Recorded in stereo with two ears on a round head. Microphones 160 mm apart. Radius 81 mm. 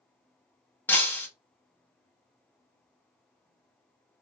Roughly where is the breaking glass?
Centre.